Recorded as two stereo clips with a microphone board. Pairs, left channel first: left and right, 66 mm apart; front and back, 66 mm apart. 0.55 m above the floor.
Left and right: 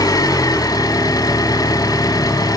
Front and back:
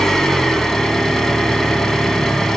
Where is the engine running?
85° left, 1.5 m.